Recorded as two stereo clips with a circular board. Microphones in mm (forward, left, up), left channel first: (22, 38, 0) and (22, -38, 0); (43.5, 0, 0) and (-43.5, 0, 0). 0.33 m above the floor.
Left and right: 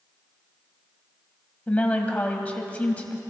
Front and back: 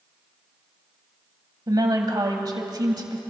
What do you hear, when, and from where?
1.7 s a woman speaking: 155° left, 1.8 m